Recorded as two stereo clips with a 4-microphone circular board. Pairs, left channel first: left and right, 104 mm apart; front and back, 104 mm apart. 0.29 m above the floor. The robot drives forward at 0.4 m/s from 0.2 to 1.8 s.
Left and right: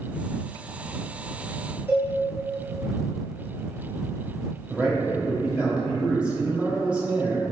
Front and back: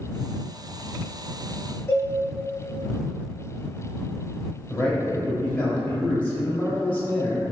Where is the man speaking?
35° right, 0.9 m.